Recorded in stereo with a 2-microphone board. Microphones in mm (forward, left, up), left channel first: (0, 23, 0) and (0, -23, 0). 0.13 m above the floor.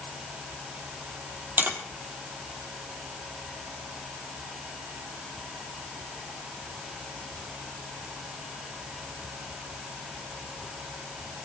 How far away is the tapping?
About 4 m.